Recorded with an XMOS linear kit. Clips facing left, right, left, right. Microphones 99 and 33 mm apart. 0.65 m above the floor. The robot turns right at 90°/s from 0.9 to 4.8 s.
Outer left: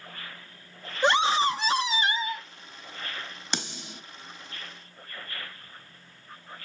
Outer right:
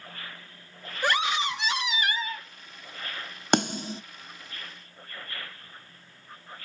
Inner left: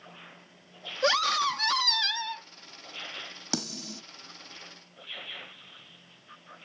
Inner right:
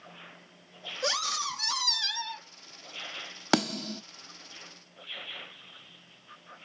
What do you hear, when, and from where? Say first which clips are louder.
1.0 s a scream: outer left 4 dB, inner left 7 dB; 35° left, 0.7 m; by 2.5 s 165° left, 0.7 m
3.5 s a snare drum: outer right 13 dB, inner right 9 dB; 55° right (ahead or behind), 0.7 m; by 4.0 s 30° right (ahead or behind), 0.7 m